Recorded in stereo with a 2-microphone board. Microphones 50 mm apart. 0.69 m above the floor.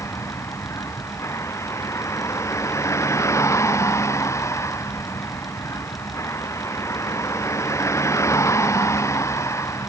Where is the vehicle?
90° left; by 9.9 s 85° left.